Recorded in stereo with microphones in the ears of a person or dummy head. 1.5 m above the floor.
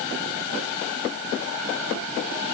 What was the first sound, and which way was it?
Only background noise.